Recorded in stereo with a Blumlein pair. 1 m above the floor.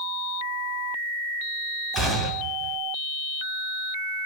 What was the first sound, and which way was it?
A gunshot, 5° right.